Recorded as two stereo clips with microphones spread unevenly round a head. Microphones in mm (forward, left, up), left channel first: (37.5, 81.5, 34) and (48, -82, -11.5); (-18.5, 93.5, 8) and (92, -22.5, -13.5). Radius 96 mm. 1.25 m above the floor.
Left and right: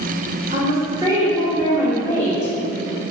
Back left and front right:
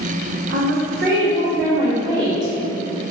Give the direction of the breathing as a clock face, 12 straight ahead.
I don't hear breathing.